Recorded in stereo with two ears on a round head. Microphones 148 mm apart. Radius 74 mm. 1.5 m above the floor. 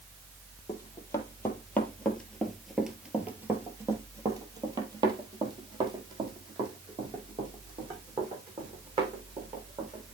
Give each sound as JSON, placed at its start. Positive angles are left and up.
{"t": 0.7, "sound": "running footsteps", "side_deg": 20, "distance_m": 2.0}